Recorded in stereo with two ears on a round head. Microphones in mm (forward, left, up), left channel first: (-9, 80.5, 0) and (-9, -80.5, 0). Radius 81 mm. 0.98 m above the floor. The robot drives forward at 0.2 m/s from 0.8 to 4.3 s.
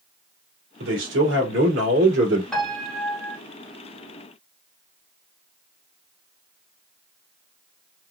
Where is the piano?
5° left (ahead or behind), 1.5 m.